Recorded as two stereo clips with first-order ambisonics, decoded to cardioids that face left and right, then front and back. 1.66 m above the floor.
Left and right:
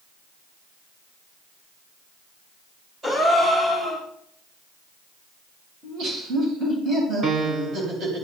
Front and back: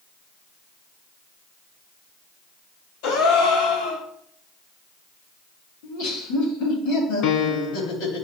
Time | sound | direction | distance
3.0 | a gasp | 10° right | 1.9 m
5.8 | laughter | 35° right | 3 m
7.2 | a piano | 25° right | 0.5 m